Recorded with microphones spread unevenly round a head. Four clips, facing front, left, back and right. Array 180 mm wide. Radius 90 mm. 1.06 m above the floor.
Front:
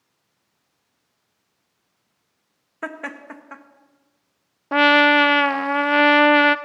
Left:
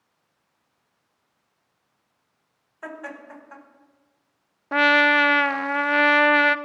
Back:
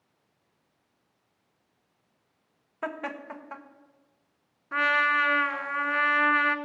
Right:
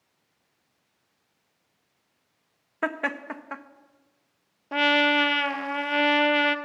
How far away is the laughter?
About 1.4 m.